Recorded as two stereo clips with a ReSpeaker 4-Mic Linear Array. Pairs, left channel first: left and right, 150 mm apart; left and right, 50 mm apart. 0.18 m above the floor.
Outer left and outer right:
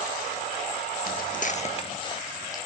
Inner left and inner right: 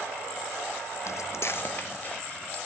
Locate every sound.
1.1 s footsteps: 75° left (ahead or behind), 0.6 m; by 2.6 s 25° left (ahead or behind), 1.9 m